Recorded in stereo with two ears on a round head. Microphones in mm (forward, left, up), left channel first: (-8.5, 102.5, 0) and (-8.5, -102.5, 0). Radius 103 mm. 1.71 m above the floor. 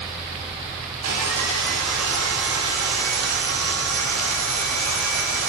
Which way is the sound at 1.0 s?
80° right.